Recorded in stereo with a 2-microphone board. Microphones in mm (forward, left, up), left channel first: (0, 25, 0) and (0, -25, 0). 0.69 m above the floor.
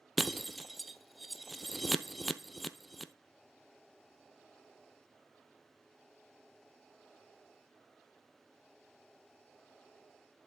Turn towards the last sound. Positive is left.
turn(degrees=0)  # may be behind; listen again after turning